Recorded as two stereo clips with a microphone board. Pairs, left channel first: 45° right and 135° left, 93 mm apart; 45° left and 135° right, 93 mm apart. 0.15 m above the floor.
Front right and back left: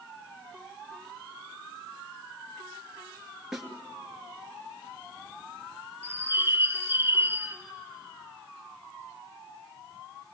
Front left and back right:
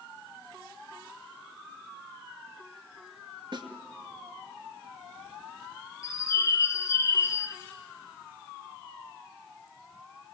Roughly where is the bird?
Left.